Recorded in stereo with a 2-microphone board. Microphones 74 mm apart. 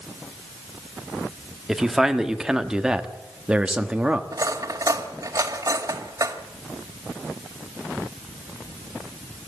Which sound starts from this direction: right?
Cutlery clinking, at 4.3 s.